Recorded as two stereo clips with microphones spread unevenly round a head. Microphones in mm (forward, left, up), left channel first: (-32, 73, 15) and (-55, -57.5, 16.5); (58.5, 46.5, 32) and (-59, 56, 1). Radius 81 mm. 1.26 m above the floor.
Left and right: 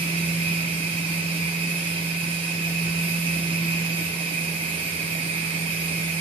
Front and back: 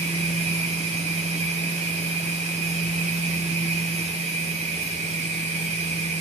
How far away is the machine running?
About 2.5 m.